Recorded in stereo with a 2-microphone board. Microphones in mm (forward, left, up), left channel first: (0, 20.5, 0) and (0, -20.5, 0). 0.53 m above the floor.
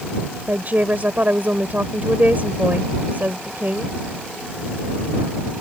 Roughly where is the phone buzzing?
I don't hear a phone buzzing.